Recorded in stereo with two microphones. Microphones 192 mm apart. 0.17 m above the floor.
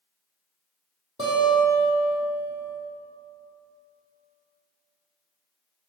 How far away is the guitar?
About 1.3 m.